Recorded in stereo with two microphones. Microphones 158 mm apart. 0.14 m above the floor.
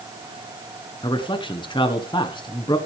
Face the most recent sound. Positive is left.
turn(degrees=30)  # may be behind; listen again after turning